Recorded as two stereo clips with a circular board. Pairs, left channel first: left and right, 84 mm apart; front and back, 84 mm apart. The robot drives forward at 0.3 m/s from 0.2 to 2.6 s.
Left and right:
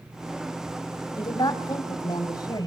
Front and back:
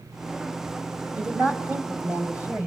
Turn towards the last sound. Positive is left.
turn(degrees=115)